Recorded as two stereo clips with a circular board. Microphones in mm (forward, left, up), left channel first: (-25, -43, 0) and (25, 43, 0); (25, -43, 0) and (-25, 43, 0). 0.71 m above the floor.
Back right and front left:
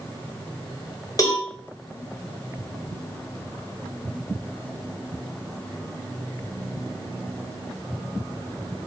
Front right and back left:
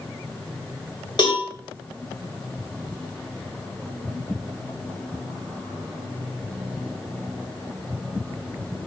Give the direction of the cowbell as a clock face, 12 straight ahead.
3 o'clock.